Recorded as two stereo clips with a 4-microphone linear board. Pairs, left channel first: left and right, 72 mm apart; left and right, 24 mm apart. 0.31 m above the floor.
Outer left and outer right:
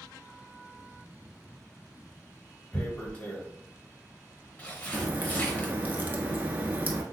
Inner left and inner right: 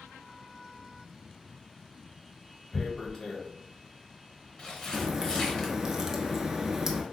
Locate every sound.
2.7 s tearing paper: 20° left (ahead or behind), 0.8 m
4.9 s a crack: 25° right (ahead or behind), 0.6 m